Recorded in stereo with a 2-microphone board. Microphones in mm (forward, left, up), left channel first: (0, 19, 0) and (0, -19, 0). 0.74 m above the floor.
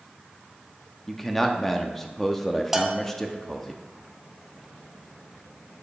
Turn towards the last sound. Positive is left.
turn(degrees=-10)  # may be behind; listen again after turning